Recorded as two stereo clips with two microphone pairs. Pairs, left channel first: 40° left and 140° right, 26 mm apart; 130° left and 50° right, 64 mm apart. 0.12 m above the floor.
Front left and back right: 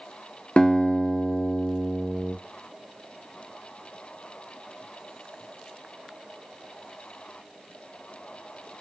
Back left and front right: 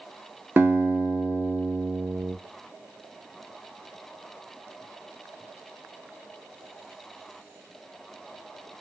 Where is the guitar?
Straight ahead, 0.7 m.